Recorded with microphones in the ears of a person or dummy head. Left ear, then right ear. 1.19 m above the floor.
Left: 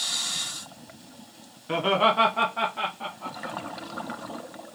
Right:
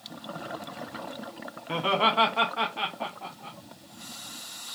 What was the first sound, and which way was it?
Laughter, centre (ahead or behind).